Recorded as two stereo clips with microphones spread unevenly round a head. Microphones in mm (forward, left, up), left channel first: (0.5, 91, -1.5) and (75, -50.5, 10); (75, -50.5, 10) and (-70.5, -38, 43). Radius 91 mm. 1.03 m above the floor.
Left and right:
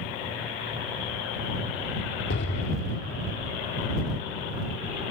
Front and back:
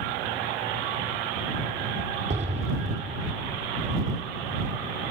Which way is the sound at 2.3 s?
130° left.